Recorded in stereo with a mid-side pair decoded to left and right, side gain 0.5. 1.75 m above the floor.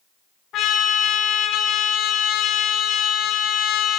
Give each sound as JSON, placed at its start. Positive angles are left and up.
{"t": 0.5, "sound": "a trumpet", "azimuth_deg": 70, "distance_m": 1.6}